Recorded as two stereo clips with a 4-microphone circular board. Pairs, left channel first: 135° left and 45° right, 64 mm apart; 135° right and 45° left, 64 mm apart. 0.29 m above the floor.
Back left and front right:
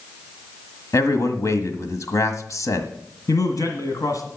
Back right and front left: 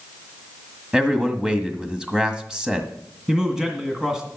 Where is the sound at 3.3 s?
125° left, 2 m.